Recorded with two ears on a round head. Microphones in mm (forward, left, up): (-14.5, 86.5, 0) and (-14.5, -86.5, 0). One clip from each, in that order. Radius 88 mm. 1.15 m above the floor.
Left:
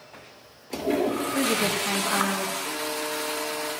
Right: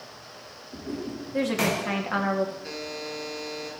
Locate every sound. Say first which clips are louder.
1.3 s a woman speaking: right 2 dB; 5° right (ahead or behind), 2 m
2.6 s a buzzer: left 5 dB; 75° right (ahead or behind), 5 m